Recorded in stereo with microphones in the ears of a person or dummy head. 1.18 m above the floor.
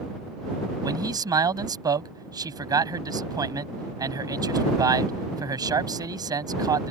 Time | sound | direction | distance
0.8 | a man speaking | 20° right (ahead or behind) | ?